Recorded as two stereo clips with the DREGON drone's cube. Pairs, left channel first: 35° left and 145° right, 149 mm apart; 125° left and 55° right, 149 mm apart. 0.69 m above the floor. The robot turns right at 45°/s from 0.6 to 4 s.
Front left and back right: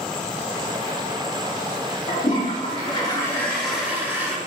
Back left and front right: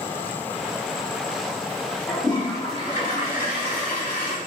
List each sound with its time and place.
2.1 s a toilet flushing: 50° left, 4.5 m; by 4.4 s 140° left, 4.5 m